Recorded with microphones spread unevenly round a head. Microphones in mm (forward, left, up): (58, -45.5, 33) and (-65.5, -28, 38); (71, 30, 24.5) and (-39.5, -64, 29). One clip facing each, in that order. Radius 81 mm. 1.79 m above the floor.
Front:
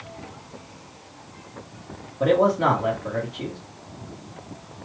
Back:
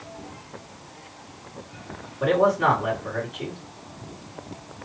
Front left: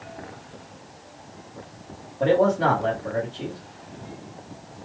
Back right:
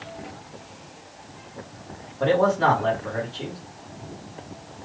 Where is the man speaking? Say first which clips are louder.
Front 1 dB, even; 35° right, 1.2 m.